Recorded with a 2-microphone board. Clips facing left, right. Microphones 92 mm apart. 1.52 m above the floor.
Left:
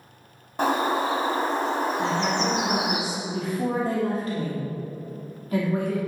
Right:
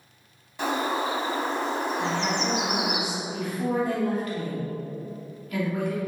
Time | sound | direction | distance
0.6 | a bird | 45° left (ahead or behind) | 1.8 m
2.0 | a woman speaking | 35° left (ahead or behind) | 3 m